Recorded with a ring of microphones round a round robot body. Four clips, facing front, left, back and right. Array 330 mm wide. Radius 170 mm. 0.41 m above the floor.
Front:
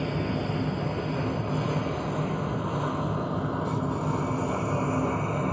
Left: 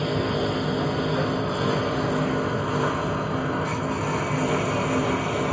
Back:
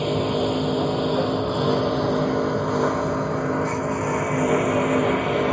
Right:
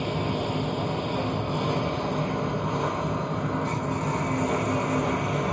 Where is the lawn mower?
155° left; by 5.5 s 175° left.